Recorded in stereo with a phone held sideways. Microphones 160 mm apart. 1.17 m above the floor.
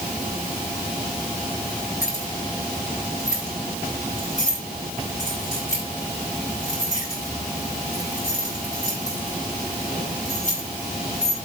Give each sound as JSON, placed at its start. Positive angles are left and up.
{"t": 2.0, "sound": "keys jangling", "side_deg": 50, "distance_m": 5.5}